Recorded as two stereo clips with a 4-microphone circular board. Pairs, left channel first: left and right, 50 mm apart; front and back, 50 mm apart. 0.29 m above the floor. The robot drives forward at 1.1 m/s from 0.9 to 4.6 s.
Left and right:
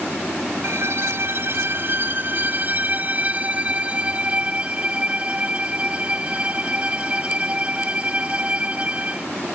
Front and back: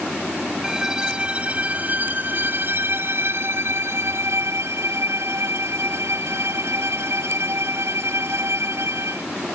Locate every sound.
0.6 s a violin: 105° right; by 9.3 s 155° right